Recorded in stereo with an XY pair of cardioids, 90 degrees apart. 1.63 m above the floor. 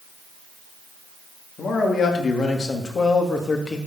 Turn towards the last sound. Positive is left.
turn(degrees=40)